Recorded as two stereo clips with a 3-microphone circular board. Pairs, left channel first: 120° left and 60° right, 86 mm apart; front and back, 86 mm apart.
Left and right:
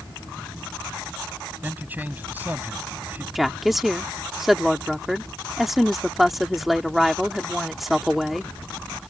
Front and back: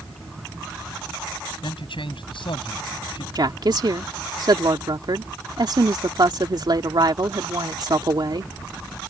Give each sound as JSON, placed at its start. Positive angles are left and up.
{"t": 1.6, "sound": "a man speaking", "azimuth_deg": 10}
{"t": 3.4, "sound": "a woman speaking", "azimuth_deg": -150}